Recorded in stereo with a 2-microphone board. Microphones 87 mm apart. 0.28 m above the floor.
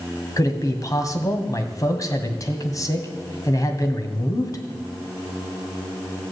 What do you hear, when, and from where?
0.4 s a man speaking: 40° left (ahead or behind), 1.8 m